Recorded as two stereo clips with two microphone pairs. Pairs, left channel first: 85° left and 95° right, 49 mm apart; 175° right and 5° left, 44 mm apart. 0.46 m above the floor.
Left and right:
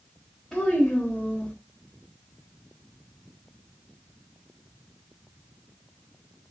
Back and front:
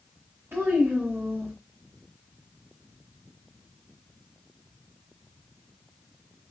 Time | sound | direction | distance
0.5 | a child speaking | 10° left | 1.1 m